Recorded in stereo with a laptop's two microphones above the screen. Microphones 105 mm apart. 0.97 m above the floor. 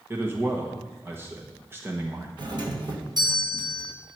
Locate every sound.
0.1 s a man speaking: 25° right (ahead or behind), 1.0 m
2.4 s a doorbell: 45° right (ahead or behind), 1.5 m